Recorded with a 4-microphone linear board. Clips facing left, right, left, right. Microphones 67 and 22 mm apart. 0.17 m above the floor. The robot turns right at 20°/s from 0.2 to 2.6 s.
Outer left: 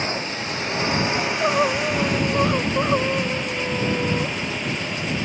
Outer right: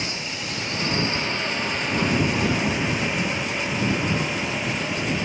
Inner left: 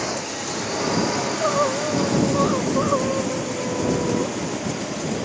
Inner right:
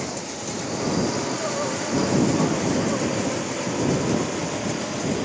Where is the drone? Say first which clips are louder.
Outer left 4 dB, inner left 4 dB; 35° left (ahead or behind); by 5.3 s 5° right (ahead or behind).